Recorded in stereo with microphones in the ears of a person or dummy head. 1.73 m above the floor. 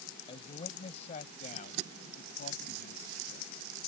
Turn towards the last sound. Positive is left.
turn(degrees=45)  # may be behind; listen again after turning